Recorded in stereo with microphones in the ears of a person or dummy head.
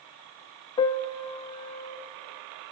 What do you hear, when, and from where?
0.8 s a piano: 20° left (ahead or behind), 1.3 m